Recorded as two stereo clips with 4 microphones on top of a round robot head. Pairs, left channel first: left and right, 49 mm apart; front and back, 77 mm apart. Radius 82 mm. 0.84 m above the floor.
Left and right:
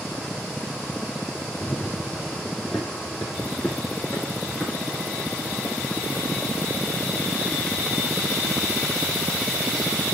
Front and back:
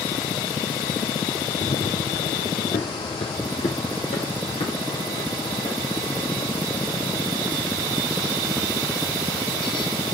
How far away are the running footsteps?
About 1.6 m.